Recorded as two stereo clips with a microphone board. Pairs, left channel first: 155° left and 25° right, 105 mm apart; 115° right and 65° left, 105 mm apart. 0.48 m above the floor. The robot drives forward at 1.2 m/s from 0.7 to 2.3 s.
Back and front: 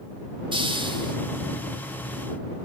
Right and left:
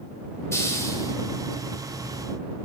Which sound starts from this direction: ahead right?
A hiss, at 0.5 s.